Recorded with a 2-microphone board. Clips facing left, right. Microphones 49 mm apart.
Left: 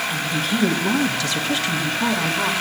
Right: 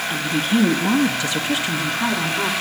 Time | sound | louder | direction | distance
0.1 | a woman speaking | right 2 dB | 40° right (ahead or behind) | 1.1 m